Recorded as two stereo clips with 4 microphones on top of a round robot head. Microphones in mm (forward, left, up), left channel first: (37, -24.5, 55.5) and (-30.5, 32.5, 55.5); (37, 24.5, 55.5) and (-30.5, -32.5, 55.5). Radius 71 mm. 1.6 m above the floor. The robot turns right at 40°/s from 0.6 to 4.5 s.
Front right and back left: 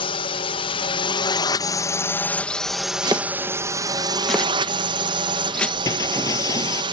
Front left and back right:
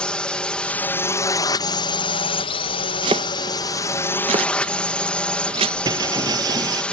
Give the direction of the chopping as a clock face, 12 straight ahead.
6 o'clock.